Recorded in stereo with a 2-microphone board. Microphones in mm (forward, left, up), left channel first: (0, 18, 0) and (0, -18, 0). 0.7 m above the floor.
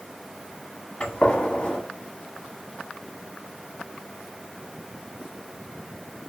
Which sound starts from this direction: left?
A gunshot, at 1.0 s.